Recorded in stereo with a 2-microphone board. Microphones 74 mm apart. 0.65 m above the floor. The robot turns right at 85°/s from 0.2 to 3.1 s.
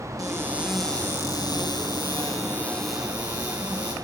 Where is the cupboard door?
45° right, 6 m; by 4.0 s 160° right, 6 m.